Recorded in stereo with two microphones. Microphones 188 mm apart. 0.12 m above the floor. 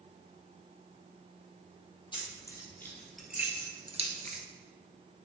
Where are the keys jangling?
25° left (ahead or behind), 3 m; by 4.4 s 50° right (ahead or behind), 1.7 m.